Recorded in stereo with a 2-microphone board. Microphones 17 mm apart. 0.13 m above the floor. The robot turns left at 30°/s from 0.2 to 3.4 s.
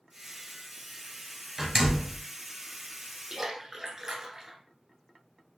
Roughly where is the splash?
Right.